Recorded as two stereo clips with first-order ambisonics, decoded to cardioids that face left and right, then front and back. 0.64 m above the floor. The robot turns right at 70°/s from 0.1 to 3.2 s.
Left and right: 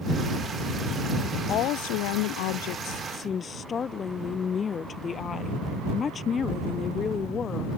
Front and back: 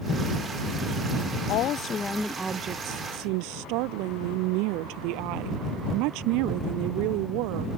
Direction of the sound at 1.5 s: 35° left.